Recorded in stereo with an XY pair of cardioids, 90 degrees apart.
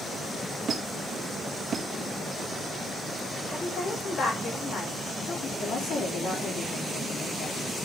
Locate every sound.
0.7 s a squeak: 50° right, 1.9 m
3.5 s a woman speaking: 50° left, 6 m
5.6 s a woman speaking: 65° left, 5 m